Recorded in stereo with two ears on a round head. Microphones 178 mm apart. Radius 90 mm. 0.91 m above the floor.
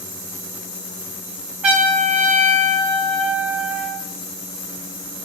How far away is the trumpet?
About 3 m.